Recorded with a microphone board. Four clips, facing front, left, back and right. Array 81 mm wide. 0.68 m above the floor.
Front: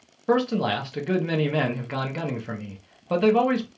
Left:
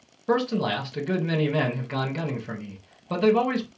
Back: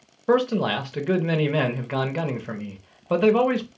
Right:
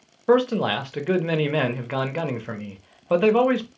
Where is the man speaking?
105° right, 0.7 m.